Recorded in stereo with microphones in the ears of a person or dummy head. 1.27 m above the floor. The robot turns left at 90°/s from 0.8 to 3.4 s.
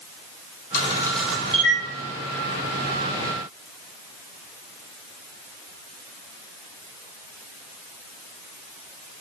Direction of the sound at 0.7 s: 35° left (ahead or behind).